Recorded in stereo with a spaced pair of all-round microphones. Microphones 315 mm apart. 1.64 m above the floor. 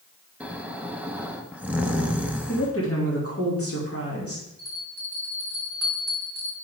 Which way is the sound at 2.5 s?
45° left (ahead or behind).